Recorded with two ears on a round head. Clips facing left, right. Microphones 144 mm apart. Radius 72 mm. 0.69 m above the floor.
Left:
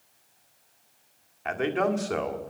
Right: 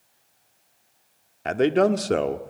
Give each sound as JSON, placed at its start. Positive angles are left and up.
{"t": 1.4, "sound": "a man speaking", "side_deg": -45, "distance_m": 1.6}